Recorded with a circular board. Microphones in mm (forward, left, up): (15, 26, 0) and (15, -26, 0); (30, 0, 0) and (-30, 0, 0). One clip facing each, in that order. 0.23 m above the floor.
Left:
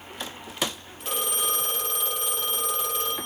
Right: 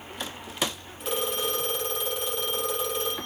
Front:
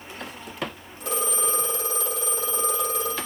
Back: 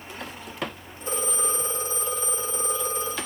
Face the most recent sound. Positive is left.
turn(degrees=0)